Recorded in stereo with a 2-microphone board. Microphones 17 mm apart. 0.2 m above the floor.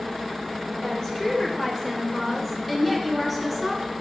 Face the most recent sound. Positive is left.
turn(degrees=0)  # may be behind; listen again after turning